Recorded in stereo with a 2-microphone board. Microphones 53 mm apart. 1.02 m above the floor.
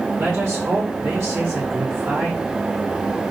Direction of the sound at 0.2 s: 65° right (ahead or behind).